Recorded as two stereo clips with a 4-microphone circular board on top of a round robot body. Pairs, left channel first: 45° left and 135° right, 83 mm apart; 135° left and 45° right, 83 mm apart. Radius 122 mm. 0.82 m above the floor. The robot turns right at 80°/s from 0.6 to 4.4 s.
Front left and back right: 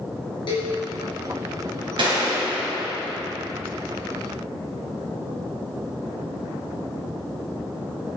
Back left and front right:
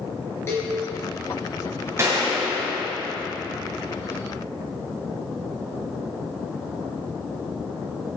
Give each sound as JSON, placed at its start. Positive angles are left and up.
{"t": 0.5, "sound": "a cowbell", "azimuth_deg": 75, "distance_m": 3.0}
{"t": 2.0, "sound": "a gunshot", "azimuth_deg": -105, "distance_m": 2.0}